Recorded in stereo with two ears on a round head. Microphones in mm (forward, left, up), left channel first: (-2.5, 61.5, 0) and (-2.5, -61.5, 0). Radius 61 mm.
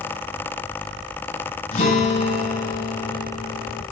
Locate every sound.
1.7 s a guitar: 55° left (ahead or behind), 9.5 m